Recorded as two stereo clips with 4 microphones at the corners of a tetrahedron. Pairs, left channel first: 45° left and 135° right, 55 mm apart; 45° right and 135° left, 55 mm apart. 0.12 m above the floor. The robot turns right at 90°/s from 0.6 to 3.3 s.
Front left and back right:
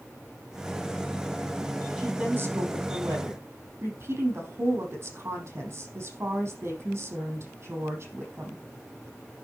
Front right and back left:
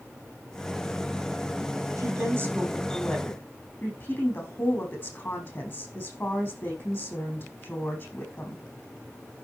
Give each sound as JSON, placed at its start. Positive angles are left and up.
{"t": 2.0, "sound": "a woman speaking", "azimuth_deg": 150, "distance_m": 5.0}